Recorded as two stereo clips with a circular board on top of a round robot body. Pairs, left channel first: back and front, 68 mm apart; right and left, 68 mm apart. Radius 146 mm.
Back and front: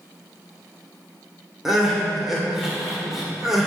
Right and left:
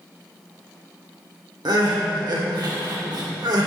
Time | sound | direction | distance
1.6 | crying | 85° left | 2.5 m